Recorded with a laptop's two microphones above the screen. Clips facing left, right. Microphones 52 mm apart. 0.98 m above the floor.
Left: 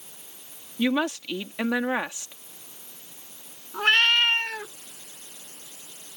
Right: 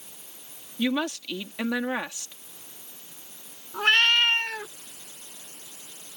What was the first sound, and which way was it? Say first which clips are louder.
A woman speaking: left 2 dB; 15° left (ahead or behind).